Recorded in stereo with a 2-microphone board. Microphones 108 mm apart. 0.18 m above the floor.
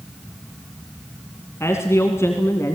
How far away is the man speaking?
About 2 m.